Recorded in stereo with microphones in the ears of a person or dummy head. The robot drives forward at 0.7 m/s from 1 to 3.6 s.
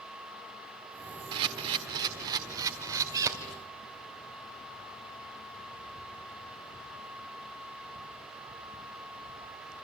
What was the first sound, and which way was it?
A camera shutter, 20° right (ahead or behind).